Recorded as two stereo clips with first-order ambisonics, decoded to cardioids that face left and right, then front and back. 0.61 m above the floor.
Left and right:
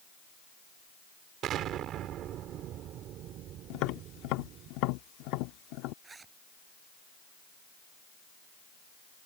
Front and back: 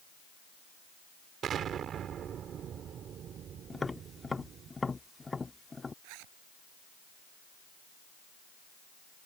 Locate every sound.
1.4 s an explosion: 130° right
3.7 s tapping: 80° left
6.0 s a zipper: 165° right